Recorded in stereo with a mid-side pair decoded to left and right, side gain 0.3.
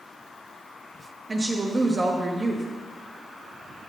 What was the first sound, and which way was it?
A woman speaking, 40° right.